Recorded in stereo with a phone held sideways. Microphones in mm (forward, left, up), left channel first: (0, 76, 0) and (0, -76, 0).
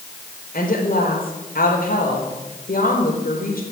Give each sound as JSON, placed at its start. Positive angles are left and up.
{"t": 0.5, "sound": "a woman speaking", "side_deg": 65, "distance_m": 4.0}